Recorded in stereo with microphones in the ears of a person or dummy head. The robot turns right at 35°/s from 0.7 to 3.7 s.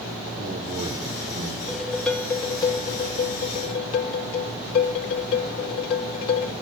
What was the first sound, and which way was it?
A man speaking, 165° right.